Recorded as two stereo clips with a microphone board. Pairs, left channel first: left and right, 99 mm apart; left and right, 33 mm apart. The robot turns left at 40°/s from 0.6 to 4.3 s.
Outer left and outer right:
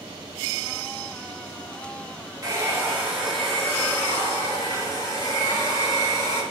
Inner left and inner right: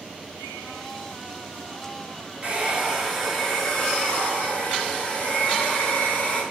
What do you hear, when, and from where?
2.4 s a hair dryer: 140° right, 3 m; by 6.4 s 145° left, 3 m